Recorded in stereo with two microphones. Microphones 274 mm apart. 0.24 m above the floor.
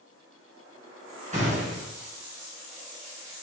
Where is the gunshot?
25° right (ahead or behind), 3 m.